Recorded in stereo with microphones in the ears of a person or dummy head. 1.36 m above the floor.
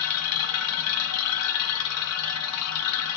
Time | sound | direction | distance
0.0 | a machine running | 80° left | 0.7 m